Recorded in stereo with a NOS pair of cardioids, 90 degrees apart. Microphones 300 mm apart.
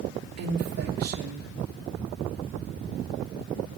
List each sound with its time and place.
0.4 s a woman speaking: 55° right, 1.9 m